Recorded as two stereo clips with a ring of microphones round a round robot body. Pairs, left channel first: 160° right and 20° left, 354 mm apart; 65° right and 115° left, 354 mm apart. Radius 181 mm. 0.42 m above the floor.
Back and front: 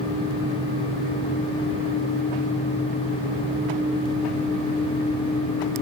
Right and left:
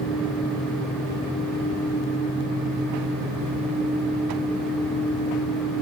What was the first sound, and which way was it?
Only background noise.